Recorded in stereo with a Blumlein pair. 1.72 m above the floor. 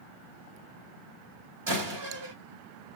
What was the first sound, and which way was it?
A door slam, 50° right.